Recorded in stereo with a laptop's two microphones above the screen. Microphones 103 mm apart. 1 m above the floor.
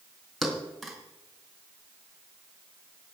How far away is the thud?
About 3.5 m.